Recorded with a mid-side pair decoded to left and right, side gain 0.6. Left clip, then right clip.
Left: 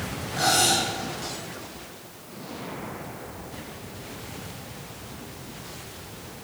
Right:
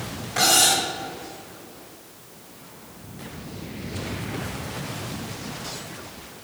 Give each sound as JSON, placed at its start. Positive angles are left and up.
{"t": 0.4, "sound": "cutlery clinking", "azimuth_deg": -55, "distance_m": 3.0}